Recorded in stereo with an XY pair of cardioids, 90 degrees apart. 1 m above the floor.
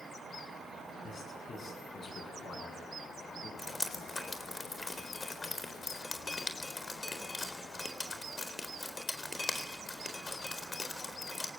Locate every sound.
1.0 s a man speaking: 60° left, 8.5 m
3.6 s dripping: 25° left, 4 m